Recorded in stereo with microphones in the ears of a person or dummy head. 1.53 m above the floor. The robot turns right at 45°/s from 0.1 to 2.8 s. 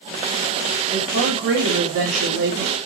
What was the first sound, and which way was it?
A woman speaking, 140° right.